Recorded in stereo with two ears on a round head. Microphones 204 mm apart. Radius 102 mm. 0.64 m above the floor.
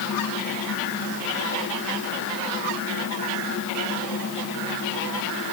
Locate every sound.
Only background noise.